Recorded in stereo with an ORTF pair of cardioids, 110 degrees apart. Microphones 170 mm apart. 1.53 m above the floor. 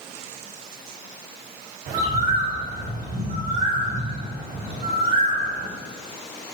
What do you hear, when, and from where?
1.9 s a bird: 60° right, 3 m